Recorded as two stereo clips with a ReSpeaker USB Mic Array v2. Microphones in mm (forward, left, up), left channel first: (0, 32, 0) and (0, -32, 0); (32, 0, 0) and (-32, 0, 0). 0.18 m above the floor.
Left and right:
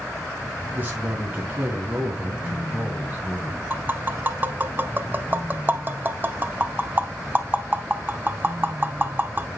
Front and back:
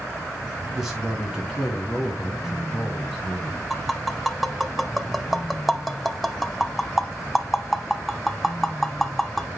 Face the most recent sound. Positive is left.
turn(degrees=-90)